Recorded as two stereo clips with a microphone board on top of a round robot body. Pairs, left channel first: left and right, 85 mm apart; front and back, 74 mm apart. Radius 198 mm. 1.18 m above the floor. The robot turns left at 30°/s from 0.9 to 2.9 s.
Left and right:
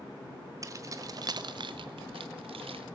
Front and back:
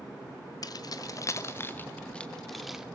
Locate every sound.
0.6 s keys jangling: 40° right, 0.7 m; by 2.9 s 95° right, 0.7 m